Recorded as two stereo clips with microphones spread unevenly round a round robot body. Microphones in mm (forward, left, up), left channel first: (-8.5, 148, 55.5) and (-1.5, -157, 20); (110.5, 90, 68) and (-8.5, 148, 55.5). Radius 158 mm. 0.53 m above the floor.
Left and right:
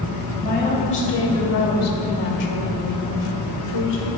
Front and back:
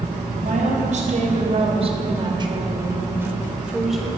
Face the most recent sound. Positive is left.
turn(degrees=65)